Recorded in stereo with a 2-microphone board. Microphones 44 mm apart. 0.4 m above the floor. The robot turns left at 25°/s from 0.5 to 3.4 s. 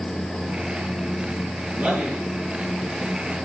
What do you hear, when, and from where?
1.7 s a man speaking: 10° right (ahead or behind), 5.5 m; by 2.2 s 25° right (ahead or behind), 5.5 m